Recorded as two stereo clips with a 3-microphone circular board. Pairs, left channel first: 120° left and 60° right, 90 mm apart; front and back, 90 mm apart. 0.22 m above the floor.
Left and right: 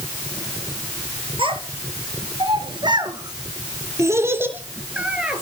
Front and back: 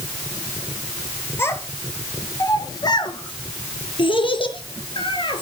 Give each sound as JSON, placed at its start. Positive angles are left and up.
{"t": 1.4, "sound": "a child speaking", "azimuth_deg": -60, "distance_m": 3.5}